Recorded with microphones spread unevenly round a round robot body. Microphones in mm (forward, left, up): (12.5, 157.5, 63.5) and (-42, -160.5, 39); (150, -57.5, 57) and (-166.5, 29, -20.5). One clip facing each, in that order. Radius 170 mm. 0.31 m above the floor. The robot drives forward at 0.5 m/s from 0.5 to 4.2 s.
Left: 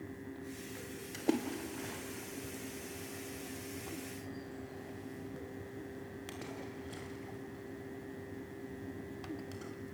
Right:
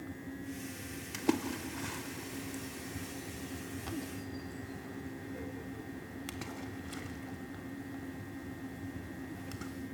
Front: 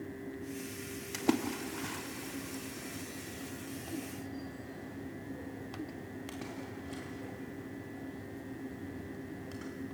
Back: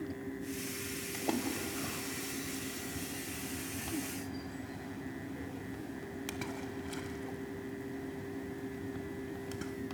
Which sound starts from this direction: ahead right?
A splash, at 1.1 s.